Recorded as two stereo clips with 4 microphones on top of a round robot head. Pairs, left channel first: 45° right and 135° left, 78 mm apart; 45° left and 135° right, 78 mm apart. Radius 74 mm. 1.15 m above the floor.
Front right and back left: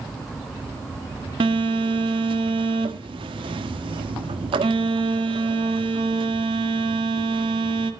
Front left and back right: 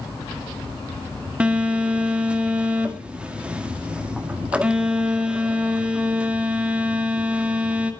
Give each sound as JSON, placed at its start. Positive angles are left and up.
{"t": 1.4, "sound": "a phone buzzing", "azimuth_deg": 150, "distance_m": 1.7}